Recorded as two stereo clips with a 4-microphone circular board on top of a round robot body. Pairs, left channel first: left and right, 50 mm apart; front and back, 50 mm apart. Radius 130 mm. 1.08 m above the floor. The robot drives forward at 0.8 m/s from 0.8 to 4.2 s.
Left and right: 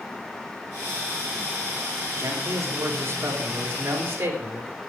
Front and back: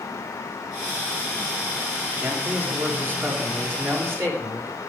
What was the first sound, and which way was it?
A man speaking, 115° right.